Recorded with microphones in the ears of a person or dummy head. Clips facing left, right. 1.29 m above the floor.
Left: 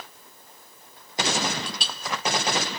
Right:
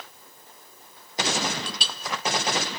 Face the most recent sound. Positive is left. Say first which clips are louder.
# even
turn(degrees=-60)  # may be behind; listen again after turning